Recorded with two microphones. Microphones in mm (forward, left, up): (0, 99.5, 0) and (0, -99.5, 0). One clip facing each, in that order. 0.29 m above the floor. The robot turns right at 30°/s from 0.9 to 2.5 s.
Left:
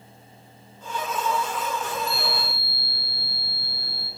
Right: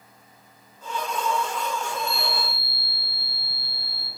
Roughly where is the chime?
Left.